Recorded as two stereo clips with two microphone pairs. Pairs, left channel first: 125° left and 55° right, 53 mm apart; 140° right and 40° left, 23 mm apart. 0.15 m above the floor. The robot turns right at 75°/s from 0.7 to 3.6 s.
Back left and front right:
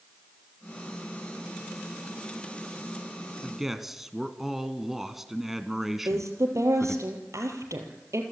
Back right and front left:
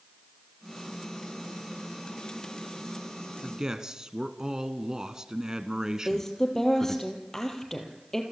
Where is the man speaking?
10° left, 1.5 m; by 7.0 s 25° left, 1.5 m.